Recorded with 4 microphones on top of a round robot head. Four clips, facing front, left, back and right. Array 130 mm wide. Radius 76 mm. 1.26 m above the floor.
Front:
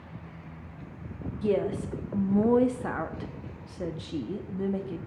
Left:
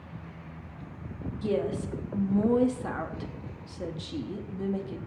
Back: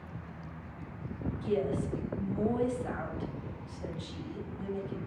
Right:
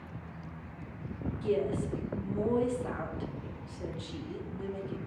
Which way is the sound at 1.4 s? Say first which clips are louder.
Left 2 dB, front 5 dB; 15° left.